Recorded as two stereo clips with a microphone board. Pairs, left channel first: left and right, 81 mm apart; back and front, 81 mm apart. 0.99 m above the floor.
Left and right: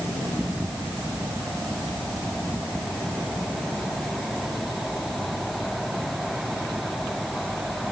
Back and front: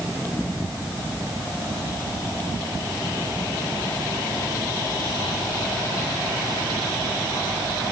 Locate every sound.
Only background noise.